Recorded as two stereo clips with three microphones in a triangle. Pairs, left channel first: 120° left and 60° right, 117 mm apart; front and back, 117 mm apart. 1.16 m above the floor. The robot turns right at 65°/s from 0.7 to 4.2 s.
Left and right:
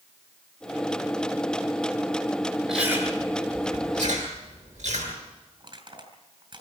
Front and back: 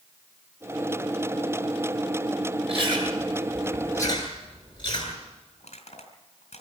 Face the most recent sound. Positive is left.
turn(degrees=-15)